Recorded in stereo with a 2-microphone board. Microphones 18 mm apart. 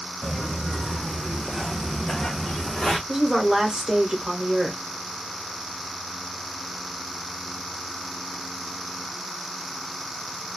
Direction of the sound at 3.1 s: 40° right (ahead or behind).